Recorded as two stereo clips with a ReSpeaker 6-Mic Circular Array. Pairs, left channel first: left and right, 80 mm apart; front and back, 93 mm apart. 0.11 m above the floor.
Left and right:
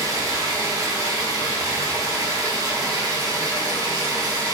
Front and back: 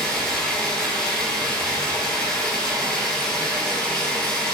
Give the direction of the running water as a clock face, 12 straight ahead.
3 o'clock.